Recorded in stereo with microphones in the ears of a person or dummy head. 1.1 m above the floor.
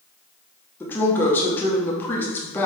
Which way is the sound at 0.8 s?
5° left (ahead or behind).